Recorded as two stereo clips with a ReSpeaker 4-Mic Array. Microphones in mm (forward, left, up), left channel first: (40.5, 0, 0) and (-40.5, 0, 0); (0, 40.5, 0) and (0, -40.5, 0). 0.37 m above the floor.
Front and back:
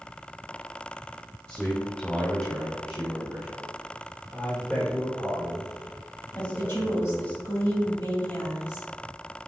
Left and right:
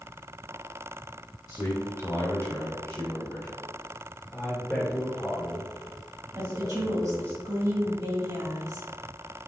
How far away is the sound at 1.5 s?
About 1.8 m.